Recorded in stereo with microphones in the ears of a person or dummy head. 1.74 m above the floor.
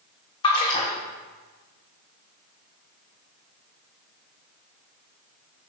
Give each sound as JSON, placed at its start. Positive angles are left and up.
{"t": 0.4, "sound": "a splash", "side_deg": 25, "distance_m": 1.5}